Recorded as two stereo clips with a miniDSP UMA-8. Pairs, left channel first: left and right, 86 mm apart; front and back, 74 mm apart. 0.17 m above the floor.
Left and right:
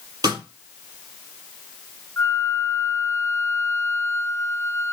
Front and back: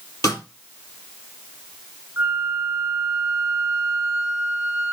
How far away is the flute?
About 1.0 m.